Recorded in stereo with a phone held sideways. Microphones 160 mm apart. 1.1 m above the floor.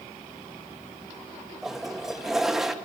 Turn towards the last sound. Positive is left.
turn(degrees=0)  # may be behind; listen again after turning